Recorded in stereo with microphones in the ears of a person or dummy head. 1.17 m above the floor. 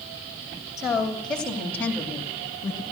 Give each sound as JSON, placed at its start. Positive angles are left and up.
{"t": 0.8, "sound": "a woman speaking", "side_deg": 0, "distance_m": 3.0}